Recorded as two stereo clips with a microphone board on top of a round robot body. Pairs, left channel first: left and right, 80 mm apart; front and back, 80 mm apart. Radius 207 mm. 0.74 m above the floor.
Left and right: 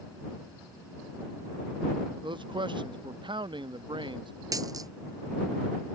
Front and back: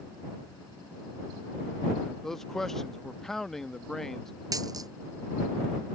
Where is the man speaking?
85° right.